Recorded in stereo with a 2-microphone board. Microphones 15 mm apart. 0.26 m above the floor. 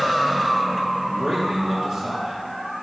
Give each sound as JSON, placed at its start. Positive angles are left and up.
{"t": 1.1, "sound": "a man speaking", "side_deg": -65, "distance_m": 4.5}